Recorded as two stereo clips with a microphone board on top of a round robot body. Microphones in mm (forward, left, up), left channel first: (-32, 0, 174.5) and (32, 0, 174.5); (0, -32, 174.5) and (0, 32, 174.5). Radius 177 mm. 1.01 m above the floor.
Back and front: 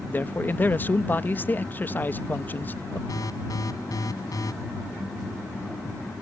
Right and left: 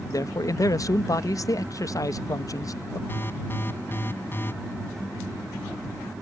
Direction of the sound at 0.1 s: 120° right.